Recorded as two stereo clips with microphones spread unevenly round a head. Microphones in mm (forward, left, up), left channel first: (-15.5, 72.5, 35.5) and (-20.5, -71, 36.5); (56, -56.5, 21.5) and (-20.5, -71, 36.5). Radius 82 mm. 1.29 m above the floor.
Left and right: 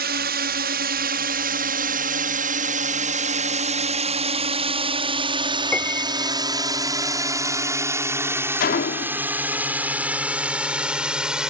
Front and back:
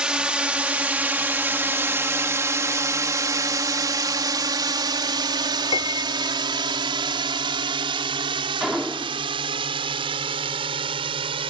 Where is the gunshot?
110° left.